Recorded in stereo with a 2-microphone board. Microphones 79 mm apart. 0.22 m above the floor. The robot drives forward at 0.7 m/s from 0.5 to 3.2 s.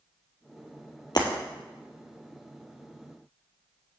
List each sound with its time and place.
1.1 s breaking glass: 55° left (ahead or behind), 1.7 m; by 1.3 s 50° left (ahead or behind), 1.8 m